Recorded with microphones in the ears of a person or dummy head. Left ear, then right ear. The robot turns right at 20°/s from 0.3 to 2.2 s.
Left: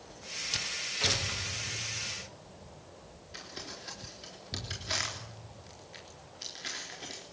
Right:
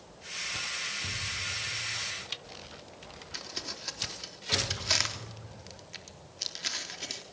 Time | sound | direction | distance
3.3 | crumpling | 30° right (ahead or behind) | 3.5 m